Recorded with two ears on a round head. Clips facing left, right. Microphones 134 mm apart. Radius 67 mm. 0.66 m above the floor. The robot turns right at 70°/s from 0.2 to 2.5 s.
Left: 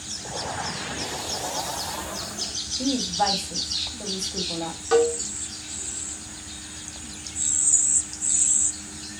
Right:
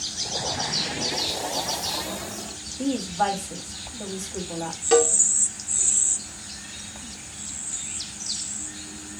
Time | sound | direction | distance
2.8 | a woman speaking | centre (ahead or behind) | 1.3 m
4.9 | a cowbell | 25° right (ahead or behind) | 0.7 m